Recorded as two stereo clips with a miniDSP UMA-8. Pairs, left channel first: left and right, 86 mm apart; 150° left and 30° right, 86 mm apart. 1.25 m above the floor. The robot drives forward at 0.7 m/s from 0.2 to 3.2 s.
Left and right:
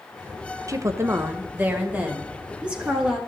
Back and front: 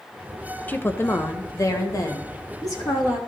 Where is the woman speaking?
140° right, 0.7 m; by 3.2 s 170° right, 2.5 m.